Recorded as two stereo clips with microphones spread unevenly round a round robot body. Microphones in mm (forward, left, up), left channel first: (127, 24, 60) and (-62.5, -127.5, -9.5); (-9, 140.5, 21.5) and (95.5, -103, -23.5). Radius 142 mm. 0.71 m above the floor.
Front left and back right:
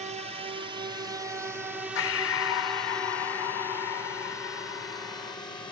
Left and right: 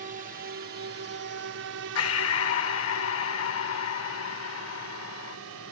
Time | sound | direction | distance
0.0 | a drone | 110° right | ?
1.9 | breathing | 80° left | ?